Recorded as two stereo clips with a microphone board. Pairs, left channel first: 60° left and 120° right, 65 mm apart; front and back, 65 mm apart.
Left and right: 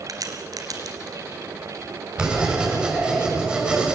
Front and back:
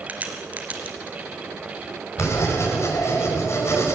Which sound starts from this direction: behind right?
A crack, at 0.1 s.